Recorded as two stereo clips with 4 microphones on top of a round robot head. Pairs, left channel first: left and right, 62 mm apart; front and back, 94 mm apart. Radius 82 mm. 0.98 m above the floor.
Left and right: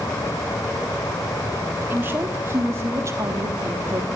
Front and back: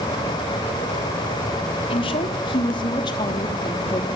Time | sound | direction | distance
1.9 | a woman speaking | 25° right | 3 m